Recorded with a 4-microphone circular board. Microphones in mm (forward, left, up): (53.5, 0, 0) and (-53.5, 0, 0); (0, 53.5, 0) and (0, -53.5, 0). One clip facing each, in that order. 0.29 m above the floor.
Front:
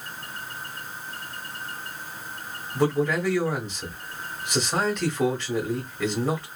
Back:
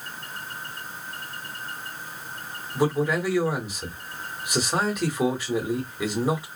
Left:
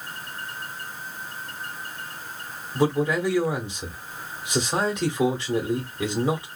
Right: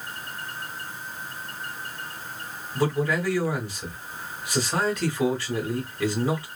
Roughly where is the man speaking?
Behind left.